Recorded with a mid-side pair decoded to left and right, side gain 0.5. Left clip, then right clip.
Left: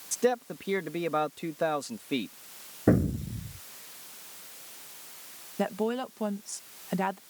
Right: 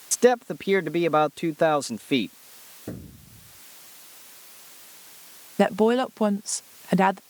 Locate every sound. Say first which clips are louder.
0.1 s a man speaking: right 8 dB; 50° right
2.9 s an explosion: left 15 dB; 70° left
5.6 s a woman speaking: right 10 dB; 55° right